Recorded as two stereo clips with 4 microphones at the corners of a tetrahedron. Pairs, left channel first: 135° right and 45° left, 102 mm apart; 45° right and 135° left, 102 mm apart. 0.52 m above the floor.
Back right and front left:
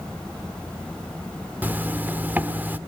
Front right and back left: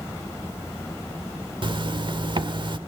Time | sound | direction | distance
1.6 | a zipper | 115° left | 1.3 m